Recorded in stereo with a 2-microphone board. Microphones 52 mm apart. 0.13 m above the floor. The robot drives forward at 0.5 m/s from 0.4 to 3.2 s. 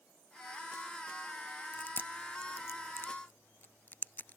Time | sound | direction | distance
1.7 | chewing | 40° left (ahead or behind) | ?